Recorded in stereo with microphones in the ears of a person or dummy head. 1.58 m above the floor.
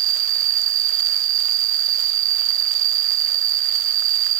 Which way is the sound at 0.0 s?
70° right (ahead or behind).